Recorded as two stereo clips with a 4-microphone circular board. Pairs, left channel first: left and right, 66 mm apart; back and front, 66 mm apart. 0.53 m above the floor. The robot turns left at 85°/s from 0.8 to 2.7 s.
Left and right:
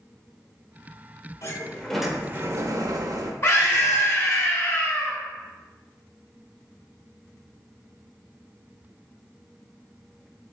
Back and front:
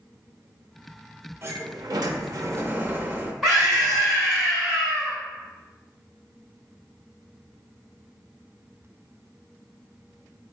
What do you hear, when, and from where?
1.4 s a sliding door: 50° left, 0.5 m; by 3.3 s 60° right, 0.5 m
3.4 s a scream: 90° left, 1.2 m